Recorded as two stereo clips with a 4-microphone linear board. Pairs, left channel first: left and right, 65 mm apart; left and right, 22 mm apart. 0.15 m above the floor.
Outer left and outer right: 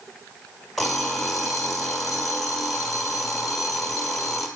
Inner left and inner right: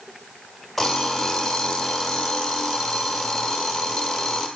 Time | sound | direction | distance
0.8 | an alarm clock | 5° left (ahead or behind) | 1.4 m